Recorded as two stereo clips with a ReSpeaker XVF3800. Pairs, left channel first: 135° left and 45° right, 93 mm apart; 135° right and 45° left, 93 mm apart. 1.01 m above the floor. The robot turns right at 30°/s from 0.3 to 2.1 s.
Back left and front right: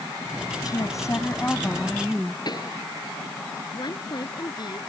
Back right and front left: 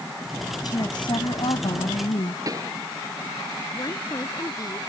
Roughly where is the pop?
Left.